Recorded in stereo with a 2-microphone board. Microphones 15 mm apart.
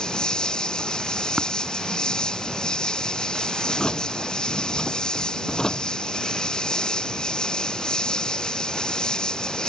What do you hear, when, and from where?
0.0 s an insect: 55° left (ahead or behind)
1.4 s tapping: 30° right (ahead or behind)
3.6 s a drawer: 45° left (ahead or behind)